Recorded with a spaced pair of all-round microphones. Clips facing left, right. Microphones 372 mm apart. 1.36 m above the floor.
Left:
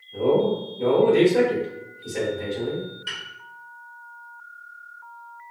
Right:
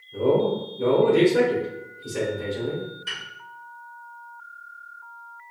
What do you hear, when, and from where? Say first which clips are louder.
0.1 s a man speaking: left 1 dB; 20° right (ahead or behind), 1.5 m
3.1 s a piano: left 1 dB; 20° left (ahead or behind), 1.0 m